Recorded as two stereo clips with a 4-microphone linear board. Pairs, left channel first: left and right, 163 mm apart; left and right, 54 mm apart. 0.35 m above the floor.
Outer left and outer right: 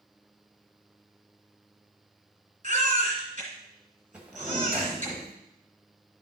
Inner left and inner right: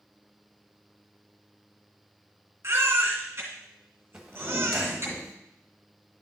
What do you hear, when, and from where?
2.6 s a baby crying: 45° right (ahead or behind), 2.5 m
4.1 s a drawer: 10° right (ahead or behind), 1.2 m